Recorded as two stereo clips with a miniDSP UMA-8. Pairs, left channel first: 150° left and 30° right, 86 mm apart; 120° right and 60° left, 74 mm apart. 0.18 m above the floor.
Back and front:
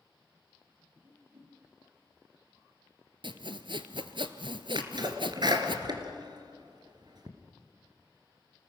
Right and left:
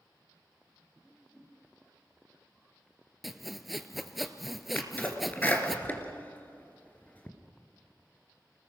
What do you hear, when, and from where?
1.0 s a whoosh: 40° right, 5.5 m
3.2 s sawing: 30° right, 1.0 m
4.8 s a sneeze: 55° right, 2.5 m